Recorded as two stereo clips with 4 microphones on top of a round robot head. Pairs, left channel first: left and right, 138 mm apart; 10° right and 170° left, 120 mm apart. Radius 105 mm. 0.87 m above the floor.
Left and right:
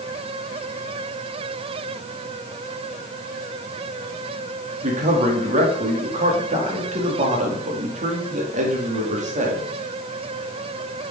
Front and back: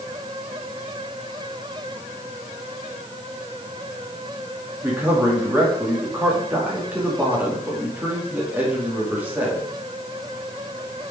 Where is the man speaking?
115° right, 2.5 m.